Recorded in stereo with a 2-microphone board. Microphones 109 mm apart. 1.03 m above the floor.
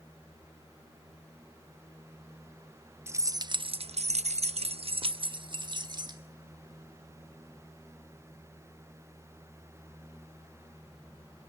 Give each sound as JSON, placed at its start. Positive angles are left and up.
{"t": 3.1, "sound": "keys jangling", "side_deg": -25, "distance_m": 0.7}